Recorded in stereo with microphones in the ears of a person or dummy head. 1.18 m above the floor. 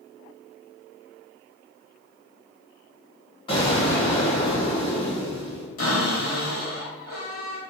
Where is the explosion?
30° left (ahead or behind), 1.0 m.